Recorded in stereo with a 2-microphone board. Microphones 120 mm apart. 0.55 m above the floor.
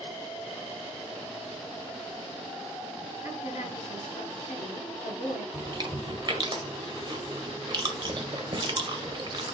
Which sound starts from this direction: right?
Chewing, at 5.5 s.